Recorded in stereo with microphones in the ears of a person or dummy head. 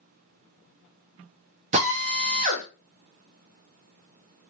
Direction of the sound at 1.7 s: 30° right (ahead or behind).